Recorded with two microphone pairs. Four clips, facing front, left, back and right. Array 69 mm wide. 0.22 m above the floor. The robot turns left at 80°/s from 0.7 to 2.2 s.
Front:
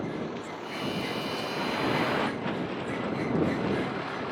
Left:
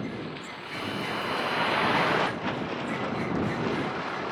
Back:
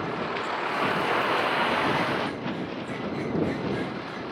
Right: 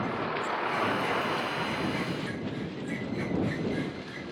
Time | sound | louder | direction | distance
0.0 | a vehicle | right 5 dB, back 5 dB | 130° right | ?